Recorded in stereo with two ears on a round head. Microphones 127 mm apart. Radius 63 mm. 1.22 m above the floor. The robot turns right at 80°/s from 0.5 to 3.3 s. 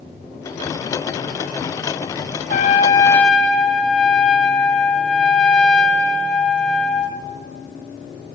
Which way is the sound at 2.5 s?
110° left.